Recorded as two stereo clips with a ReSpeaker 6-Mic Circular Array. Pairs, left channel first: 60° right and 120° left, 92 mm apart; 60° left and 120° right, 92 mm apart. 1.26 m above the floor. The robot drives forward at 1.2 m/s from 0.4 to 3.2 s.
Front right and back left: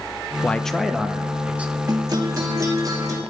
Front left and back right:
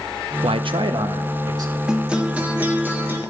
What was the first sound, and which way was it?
A man speaking, 130° right.